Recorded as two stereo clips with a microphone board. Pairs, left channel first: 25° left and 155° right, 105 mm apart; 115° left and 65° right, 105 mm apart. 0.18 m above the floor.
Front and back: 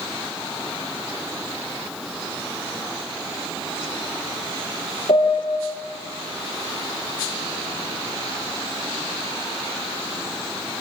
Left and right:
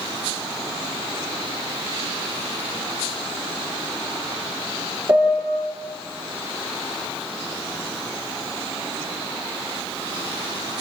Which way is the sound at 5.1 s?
5° right.